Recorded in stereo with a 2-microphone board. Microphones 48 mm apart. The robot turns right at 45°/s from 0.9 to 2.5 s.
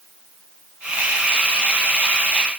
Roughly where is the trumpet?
No trumpet in this recording.